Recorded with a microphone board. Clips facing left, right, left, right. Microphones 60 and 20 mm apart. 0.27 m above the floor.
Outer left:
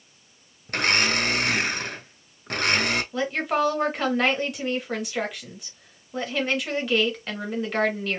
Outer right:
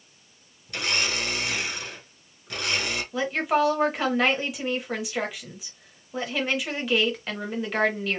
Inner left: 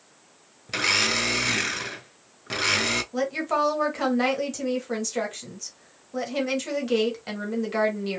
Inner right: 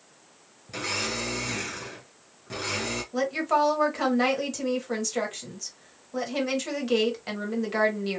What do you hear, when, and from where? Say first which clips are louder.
0.7 s a blender: outer left 5 dB, inner left 7 dB; 55° left (ahead or behind), 0.6 m
3.1 s a woman speaking: outer right 4 dB, inner right 1 dB; centre (ahead or behind), 1.1 m